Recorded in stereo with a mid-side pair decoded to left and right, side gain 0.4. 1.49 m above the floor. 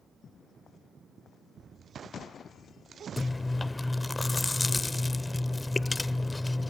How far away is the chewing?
About 0.6 m.